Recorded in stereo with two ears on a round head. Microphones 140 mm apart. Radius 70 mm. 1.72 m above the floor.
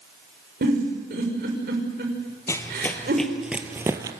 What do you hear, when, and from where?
0.6 s a giggle: 60° right (ahead or behind), 6 m
2.5 s running footsteps: 20° left (ahead or behind), 2 m; by 4.1 s 20° right (ahead or behind), 1.9 m